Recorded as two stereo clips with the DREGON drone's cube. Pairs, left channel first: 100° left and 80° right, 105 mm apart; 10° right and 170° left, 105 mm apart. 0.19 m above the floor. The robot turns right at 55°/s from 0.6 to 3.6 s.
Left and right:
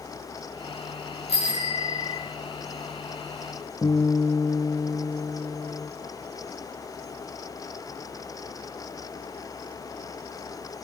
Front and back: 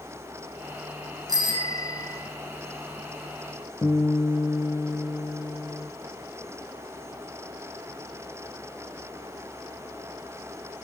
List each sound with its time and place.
1.3 s a bicycle bell: 120° left, 9.5 m; by 2.2 s 170° left, 9.5 m
3.8 s a guitar: 45° left, 4 m